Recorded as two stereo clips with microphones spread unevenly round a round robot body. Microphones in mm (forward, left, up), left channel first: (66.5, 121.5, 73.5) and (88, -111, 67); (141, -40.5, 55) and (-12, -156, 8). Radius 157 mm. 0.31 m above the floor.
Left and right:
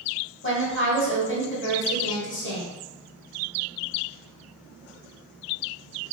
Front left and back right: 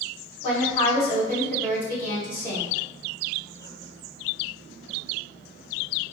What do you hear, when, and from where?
0.4 s a woman speaking: 90° left, 1.7 m